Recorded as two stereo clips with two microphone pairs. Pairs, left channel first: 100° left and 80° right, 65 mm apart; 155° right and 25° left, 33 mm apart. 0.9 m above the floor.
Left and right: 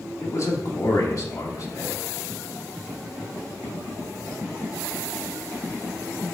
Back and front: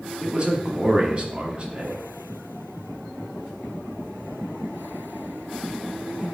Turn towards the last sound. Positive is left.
turn(degrees=70)